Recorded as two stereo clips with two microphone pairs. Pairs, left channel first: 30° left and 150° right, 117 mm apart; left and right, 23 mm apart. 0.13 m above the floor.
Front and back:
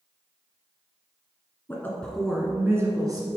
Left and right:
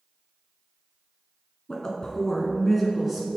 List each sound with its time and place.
1.7 s a woman speaking: 80° left, 1.3 m; by 3.3 s 165° right, 1.4 m